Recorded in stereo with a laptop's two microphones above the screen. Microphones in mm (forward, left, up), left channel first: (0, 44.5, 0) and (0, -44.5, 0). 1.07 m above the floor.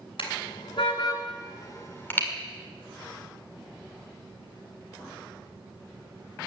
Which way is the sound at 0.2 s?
80° left.